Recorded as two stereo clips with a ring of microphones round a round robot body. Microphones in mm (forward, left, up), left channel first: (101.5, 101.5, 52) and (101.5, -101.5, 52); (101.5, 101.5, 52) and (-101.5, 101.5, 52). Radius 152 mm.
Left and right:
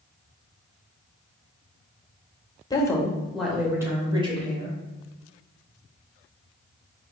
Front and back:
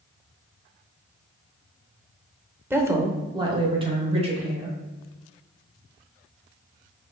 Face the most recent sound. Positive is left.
turn(degrees=-135)